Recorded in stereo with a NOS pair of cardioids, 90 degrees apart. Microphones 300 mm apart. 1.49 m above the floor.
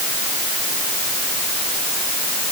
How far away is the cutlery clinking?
I don't hear cutlery clinking.